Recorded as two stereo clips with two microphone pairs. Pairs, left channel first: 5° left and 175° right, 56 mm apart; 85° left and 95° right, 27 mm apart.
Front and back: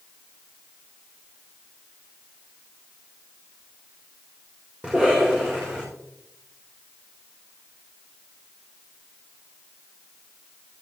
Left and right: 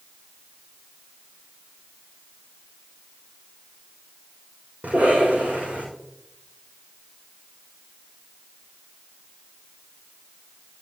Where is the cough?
110° right, 5.5 m.